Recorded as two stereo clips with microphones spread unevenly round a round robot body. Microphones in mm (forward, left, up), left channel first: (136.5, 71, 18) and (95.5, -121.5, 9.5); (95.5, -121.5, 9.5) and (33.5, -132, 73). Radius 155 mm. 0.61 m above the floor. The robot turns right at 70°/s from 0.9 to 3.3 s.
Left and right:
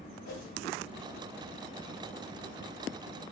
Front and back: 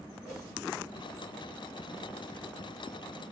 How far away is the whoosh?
About 0.9 m.